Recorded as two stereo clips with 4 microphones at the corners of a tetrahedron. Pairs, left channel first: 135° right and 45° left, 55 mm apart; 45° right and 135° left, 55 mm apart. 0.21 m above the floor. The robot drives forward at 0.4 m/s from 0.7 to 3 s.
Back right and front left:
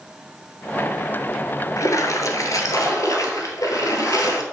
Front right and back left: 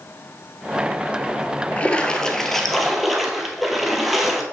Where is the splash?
110° right, 0.7 m; by 4.4 s 135° right, 1.0 m.